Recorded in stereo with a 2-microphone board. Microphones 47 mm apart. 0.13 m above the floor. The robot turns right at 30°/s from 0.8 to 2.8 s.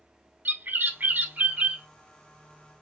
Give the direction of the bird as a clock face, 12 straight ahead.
2 o'clock.